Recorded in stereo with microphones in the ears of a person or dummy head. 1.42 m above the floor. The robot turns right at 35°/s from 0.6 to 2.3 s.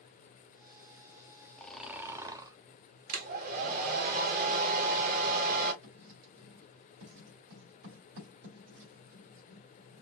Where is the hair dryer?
45° right (ahead or behind), 1.4 m.